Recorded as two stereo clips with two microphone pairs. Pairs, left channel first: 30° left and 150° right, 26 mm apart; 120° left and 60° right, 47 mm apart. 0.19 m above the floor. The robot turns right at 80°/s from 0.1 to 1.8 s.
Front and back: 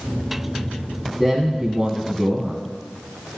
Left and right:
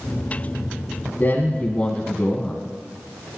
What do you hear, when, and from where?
1.2 s a man speaking: 120° left, 1.3 m; by 2.6 s 170° left, 1.3 m